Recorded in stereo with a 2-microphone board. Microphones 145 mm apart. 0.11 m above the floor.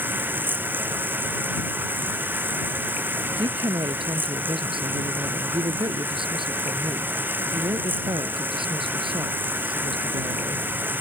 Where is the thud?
No thud in this recording.